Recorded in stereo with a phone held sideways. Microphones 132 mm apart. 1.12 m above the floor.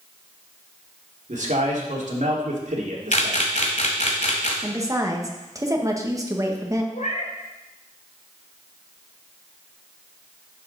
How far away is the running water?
No running water in this recording.